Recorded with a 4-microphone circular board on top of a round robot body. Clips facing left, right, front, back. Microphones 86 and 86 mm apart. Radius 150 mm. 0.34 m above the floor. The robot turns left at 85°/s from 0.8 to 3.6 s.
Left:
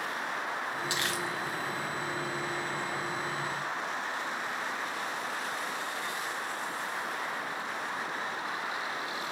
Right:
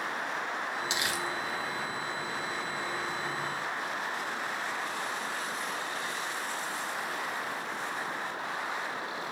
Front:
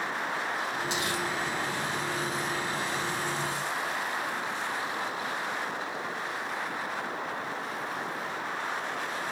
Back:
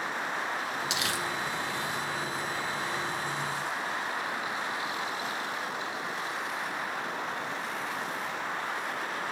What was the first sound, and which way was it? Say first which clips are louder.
Crumpling: even, front 1 dB; 160° right.